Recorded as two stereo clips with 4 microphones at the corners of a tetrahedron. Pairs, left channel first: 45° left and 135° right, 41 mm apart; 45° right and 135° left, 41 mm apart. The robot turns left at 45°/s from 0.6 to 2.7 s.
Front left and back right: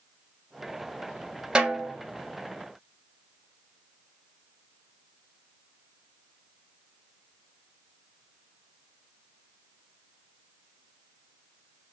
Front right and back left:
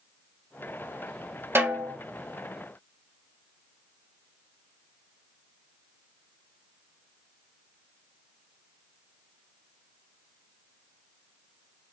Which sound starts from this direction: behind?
A snare drum, at 1.6 s.